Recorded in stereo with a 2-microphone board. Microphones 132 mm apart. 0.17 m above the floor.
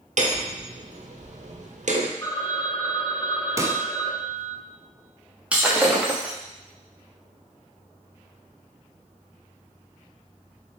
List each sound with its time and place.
0.2 s hammering: 65° right (ahead or behind), 1.3 m
2.2 s a phone ringing: 25° left (ahead or behind), 1.2 m
3.6 s a pop: 25° right (ahead or behind), 0.7 m
5.5 s breaking glass: 10° right (ahead or behind), 1.8 m